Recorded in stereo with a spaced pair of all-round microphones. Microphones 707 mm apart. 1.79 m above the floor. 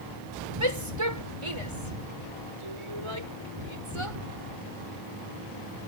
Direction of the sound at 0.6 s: 45° right (ahead or behind).